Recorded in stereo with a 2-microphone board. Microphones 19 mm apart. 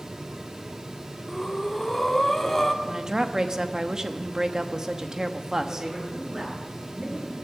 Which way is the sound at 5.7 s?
30° right (ahead or behind).